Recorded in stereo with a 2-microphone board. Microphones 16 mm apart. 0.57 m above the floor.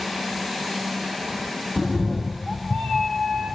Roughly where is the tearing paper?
No tearing paper in this recording.